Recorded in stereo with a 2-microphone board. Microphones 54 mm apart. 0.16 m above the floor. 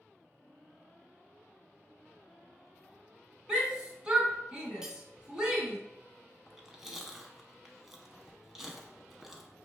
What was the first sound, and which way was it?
A shout, 15° right (ahead or behind).